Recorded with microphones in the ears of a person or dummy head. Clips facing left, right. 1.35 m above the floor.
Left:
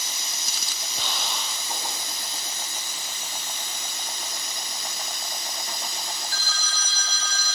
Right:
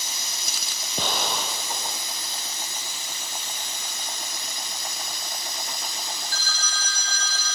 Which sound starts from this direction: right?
An explosion, at 1.0 s.